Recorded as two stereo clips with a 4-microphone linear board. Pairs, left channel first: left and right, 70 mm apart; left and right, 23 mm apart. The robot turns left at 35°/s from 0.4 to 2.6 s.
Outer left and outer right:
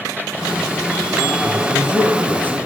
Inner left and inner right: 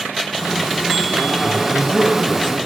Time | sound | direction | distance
1.4 | a man speaking | 60° left | 2.5 m